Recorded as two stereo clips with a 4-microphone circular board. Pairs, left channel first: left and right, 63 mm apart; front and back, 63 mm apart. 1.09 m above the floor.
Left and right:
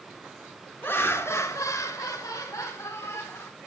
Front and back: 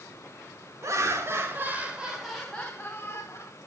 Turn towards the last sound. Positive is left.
turn(degrees=45)